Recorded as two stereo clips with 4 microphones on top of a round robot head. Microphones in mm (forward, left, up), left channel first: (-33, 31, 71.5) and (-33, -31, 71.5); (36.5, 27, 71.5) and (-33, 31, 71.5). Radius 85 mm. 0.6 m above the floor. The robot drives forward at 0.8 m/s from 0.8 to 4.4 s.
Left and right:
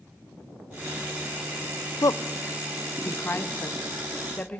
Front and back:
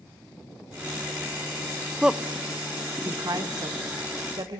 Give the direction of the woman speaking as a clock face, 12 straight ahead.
9 o'clock.